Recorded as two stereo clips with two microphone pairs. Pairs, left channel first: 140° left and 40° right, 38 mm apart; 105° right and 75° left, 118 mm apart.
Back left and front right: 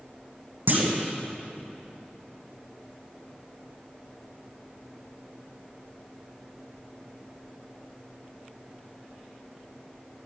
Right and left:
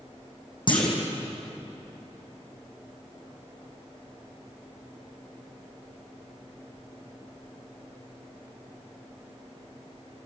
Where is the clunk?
60° right, 4 m.